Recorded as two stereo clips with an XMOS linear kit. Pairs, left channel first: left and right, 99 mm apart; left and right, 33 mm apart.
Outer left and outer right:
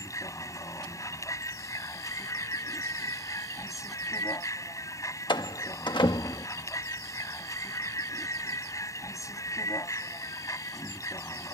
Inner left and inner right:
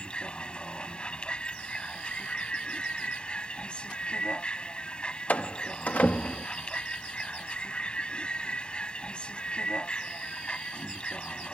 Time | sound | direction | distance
0.0 | a vehicle | 30° left (ahead or behind) | ?
5.3 | a door slam | 45° left (ahead or behind) | ?